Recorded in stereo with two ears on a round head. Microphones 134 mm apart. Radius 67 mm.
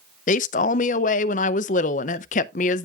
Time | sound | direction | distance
0.3 | a man speaking | 50° left (ahead or behind) | 0.5 m